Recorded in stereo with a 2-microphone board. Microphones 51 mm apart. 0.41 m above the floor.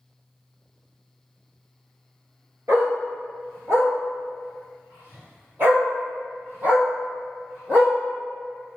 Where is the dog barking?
80° right, 1.8 m; by 7.9 s 35° right (ahead or behind), 3.5 m.